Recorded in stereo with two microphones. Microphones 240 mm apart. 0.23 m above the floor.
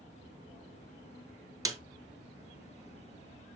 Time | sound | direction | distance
1.6 | a snare drum | 15° right (ahead or behind) | 0.8 m